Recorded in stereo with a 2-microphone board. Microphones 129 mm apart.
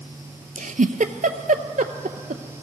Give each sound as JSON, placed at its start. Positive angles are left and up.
{"t": 0.6, "sound": "a giggle", "side_deg": -80, "distance_m": 0.6}